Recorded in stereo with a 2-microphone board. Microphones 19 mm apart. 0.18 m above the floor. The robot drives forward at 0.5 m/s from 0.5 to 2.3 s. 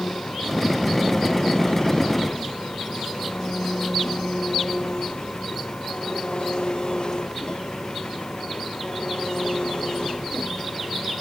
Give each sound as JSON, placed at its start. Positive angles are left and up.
{"t": 0.0, "sound": "an engine running", "side_deg": 50}